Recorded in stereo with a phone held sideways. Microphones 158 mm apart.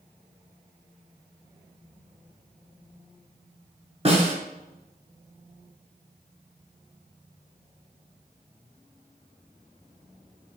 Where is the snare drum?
40° right (ahead or behind), 0.9 m.